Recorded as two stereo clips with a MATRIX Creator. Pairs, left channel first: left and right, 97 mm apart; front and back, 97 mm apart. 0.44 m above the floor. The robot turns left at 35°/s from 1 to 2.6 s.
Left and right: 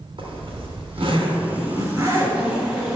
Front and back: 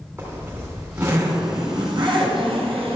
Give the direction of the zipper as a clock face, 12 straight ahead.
4 o'clock.